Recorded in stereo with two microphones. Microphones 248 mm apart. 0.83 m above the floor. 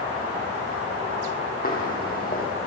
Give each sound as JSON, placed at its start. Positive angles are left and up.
{"t": 1.6, "sound": "footsteps", "side_deg": 35, "distance_m": 1.6}